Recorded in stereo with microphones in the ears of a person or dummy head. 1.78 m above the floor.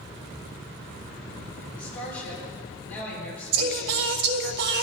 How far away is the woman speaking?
About 5.5 m.